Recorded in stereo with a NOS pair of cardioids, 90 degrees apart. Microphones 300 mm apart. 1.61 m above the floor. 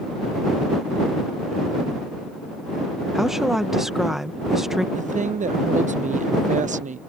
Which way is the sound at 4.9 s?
25° right.